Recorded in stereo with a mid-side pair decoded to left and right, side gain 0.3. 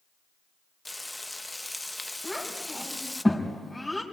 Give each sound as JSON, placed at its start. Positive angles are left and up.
{"t": 0.8, "sound": "frying", "azimuth_deg": 15, "distance_m": 0.8}
{"t": 2.2, "sound": "a child speaking", "azimuth_deg": 10, "distance_m": 5.0}